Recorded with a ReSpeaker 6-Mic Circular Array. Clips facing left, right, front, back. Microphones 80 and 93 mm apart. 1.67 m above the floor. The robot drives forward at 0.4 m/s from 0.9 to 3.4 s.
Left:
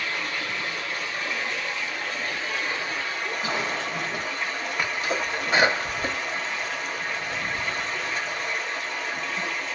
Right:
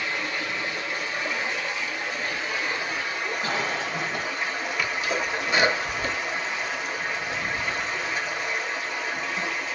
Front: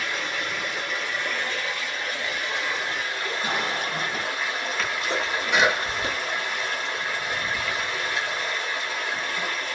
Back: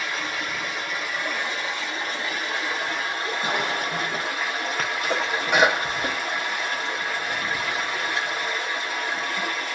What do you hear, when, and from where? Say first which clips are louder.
0.0 s running water: right 1 dB, even; 95° right, 0.8 m; by 9.7 s 165° right, 1.3 m
3.4 s a cough: even, back 1 dB; 155° left, 1.0 m
4.8 s a sneeze: even, back 2 dB; 140° left, 0.9 m